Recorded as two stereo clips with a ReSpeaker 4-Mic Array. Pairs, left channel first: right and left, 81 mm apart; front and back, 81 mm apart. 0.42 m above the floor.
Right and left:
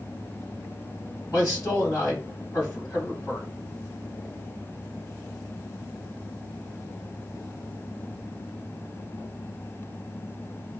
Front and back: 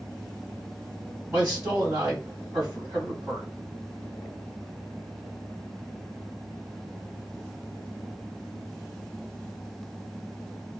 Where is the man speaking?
130° right, 2.0 m.